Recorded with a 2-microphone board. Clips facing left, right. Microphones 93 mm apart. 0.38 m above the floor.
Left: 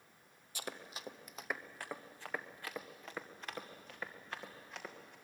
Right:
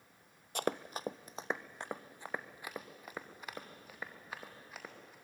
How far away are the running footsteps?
About 0.6 m.